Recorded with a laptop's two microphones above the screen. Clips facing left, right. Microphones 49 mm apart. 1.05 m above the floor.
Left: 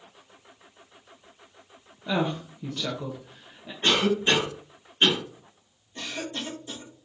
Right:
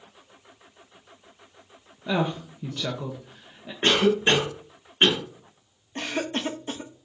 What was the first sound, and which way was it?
A woman speaking, 5° right (ahead or behind).